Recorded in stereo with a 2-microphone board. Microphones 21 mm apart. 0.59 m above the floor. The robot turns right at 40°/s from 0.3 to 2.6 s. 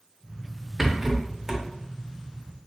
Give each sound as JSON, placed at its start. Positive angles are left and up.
{"t": 0.8, "sound": "a rattle", "side_deg": -25, "distance_m": 0.6}